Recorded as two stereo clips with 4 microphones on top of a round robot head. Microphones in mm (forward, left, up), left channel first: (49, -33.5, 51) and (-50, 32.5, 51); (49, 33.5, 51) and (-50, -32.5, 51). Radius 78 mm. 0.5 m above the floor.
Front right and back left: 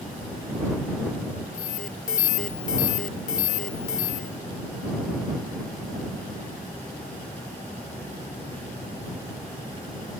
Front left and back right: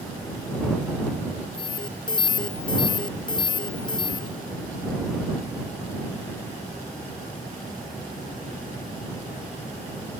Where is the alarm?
20° right.